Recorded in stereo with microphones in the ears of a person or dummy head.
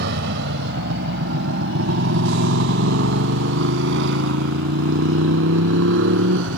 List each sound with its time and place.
0.0 s a motorcycle: 60° right (ahead or behind); by 6.6 s 70° right (ahead or behind)